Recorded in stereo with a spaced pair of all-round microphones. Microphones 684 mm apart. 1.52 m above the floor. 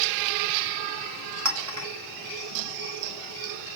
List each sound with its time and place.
1.4 s a clink: 25° right (ahead or behind), 1.2 m